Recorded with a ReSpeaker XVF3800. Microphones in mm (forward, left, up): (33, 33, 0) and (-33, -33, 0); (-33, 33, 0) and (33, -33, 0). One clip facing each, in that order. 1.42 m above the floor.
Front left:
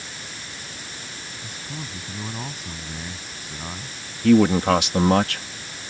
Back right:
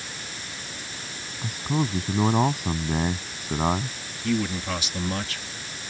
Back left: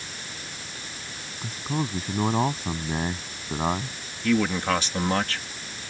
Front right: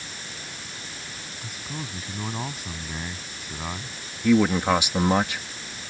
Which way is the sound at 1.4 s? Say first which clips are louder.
Back right 12 dB, back left 9 dB; 170° right.